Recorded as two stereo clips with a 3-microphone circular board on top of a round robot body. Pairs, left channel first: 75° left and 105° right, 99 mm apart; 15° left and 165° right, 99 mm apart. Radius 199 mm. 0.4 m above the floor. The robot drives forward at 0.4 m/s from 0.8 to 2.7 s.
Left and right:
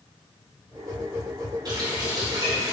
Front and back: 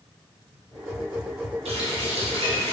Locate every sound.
1.6 s a running tap: 155° right, 2.5 m